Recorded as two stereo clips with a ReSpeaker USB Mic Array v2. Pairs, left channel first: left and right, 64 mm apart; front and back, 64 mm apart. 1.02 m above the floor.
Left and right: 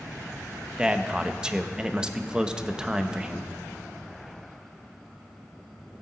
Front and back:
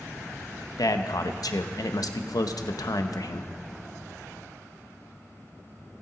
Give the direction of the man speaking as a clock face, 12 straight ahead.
12 o'clock.